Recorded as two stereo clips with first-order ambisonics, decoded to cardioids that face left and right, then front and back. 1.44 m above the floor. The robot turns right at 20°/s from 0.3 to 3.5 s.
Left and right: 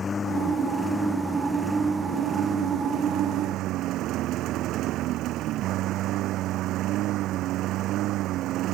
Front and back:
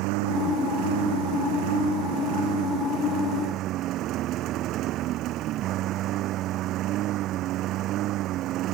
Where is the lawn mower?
160° left; by 8.8 s 135° right.